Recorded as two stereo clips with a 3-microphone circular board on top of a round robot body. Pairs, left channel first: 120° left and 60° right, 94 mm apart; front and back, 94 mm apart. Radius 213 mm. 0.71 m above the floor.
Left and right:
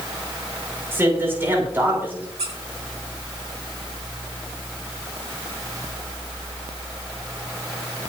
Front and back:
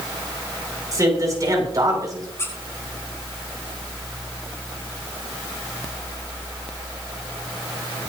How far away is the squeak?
About 4.5 m.